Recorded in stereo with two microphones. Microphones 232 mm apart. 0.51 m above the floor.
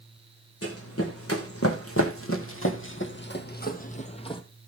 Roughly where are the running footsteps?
Left.